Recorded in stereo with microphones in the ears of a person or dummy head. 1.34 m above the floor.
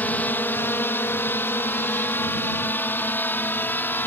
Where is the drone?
10° left (ahead or behind); by 4.1 s 15° left (ahead or behind).